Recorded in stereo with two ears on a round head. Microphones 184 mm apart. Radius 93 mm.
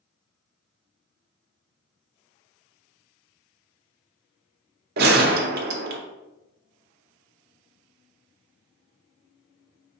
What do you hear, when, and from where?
5.0 s a gunshot: 50° right (ahead or behind), 0.6 m